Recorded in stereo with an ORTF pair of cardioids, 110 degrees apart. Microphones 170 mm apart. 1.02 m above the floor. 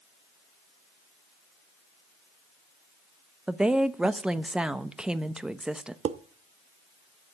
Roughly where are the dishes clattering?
Ahead right.